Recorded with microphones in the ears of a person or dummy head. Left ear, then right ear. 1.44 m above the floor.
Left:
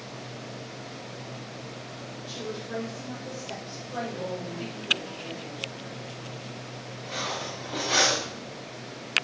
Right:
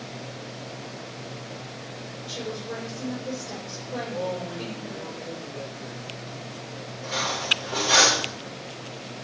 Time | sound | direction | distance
2.3 | a woman speaking | 50° left (ahead or behind) | 4.5 m
4.1 | a man speaking | 25° right (ahead or behind) | 2.5 m
7.0 | cutlery clinking | 10° right (ahead or behind) | 1.8 m